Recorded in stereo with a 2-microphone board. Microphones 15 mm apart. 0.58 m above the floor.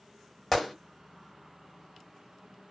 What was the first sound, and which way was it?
A gunshot, 10° left (ahead or behind).